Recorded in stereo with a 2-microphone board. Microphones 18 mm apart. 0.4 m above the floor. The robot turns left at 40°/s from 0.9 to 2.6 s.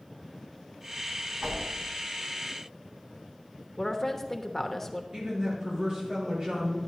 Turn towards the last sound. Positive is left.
turn(degrees=-40)  # may be behind; listen again after turning